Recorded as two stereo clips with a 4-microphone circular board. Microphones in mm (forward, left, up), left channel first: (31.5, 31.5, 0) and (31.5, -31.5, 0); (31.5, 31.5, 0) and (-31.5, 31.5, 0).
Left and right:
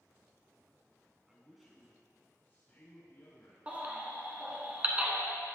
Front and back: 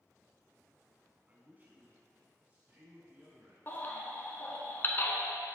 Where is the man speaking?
155° right, 1.1 m; by 3.7 s 125° left, 1.9 m.